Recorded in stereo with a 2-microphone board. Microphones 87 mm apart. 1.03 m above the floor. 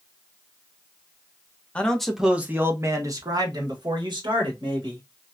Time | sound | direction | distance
1.8 | a man speaking | 15° left (ahead or behind) | 0.7 m